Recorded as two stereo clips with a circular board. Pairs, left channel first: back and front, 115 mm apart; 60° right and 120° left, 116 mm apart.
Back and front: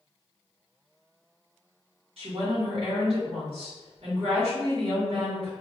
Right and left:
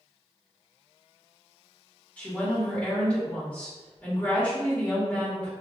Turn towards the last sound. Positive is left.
turn(degrees=15)